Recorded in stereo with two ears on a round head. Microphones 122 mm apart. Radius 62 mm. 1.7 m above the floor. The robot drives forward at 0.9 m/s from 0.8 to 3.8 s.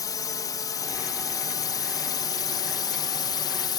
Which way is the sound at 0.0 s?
25° left (ahead or behind).